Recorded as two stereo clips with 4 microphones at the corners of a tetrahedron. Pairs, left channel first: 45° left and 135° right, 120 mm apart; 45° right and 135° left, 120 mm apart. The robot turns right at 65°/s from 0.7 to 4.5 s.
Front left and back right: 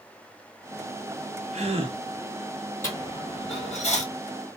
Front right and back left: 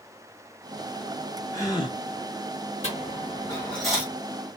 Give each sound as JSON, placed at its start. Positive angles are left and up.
{"t": 1.5, "sound": "a gasp", "azimuth_deg": -115, "distance_m": 0.6}
{"t": 2.8, "sound": "a dropped coin", "azimuth_deg": -25, "distance_m": 1.2}